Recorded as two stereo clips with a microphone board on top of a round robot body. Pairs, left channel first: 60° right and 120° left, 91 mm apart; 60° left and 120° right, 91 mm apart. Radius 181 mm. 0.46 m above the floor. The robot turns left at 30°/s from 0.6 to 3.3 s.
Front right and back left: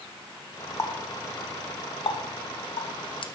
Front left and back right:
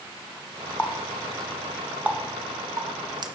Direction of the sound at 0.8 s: 10° right.